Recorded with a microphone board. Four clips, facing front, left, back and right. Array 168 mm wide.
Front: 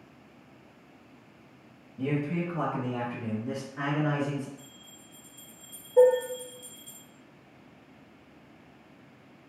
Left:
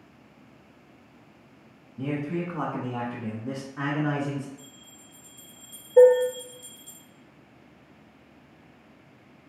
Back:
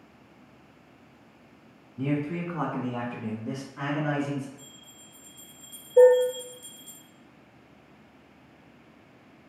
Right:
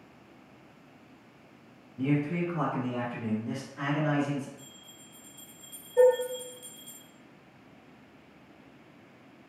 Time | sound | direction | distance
2.0 | a man speaking | 170° left | 1.5 m
4.6 | a bell | 140° left | 2 m
6.0 | dishes clattering | 110° left | 2 m